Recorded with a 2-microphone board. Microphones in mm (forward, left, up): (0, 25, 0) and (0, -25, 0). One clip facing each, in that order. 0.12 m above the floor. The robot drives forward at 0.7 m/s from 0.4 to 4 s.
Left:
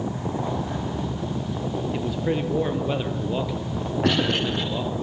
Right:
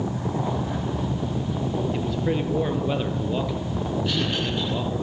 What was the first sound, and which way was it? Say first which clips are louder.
A man speaking: even; 5° left (ahead or behind).